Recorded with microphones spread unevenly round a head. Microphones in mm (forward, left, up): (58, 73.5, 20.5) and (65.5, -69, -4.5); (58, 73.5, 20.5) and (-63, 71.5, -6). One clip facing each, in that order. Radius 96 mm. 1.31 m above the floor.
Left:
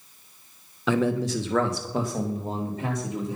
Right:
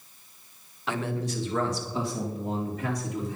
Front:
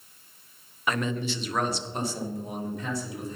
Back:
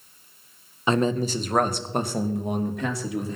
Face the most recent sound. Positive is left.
turn(degrees=170)